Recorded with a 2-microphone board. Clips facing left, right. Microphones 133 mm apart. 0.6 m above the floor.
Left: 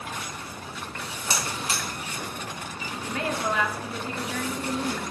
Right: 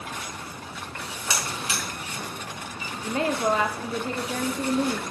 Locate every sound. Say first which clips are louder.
1.3 s a buzzer: left 1 dB; 40° left (ahead or behind), 5 m
3.0 s a woman speaking: right 5 dB; 30° right (ahead or behind), 1.0 m